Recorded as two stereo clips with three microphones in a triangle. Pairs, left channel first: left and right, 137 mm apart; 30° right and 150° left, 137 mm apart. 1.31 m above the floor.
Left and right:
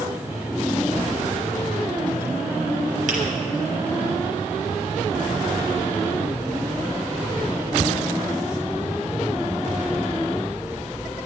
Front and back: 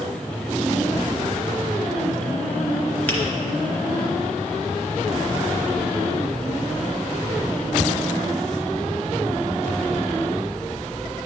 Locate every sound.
3.1 s a finger snap: 110° right, 0.9 m